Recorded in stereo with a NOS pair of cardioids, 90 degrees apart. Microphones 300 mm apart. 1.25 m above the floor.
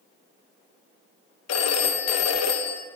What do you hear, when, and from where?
1.5 s a phone ringing: 60° left, 0.8 m